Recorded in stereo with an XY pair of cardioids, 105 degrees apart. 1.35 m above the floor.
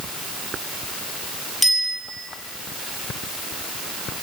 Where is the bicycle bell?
10° left, 7.5 m.